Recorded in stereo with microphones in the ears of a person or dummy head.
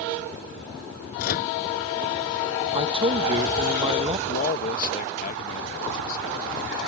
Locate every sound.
1.2 s a microwave: 60° left (ahead or behind)
2.8 s a man speaking: 30° right (ahead or behind)
4.3 s a man speaking: 55° left (ahead or behind)